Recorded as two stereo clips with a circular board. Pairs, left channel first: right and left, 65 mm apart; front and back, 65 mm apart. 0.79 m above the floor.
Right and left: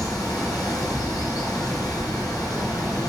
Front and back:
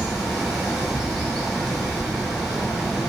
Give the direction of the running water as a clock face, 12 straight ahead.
3 o'clock.